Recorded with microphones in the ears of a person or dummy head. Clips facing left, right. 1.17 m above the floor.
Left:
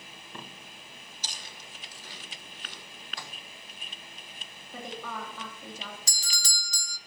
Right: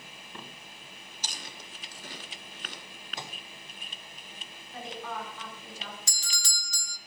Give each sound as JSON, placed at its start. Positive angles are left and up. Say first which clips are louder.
{"t": 1.2, "sound": "chewing", "louder": "right 3 dB", "side_deg": -50, "distance_m": 1.4}
{"t": 3.2, "sound": "a microwave", "louder": "right 4 dB", "side_deg": -25, "distance_m": 0.7}
{"t": 4.7, "sound": "a woman speaking", "louder": "even", "side_deg": 80, "distance_m": 2.5}
{"t": 6.1, "sound": "a doorbell", "louder": "left 1 dB", "side_deg": 35, "distance_m": 0.5}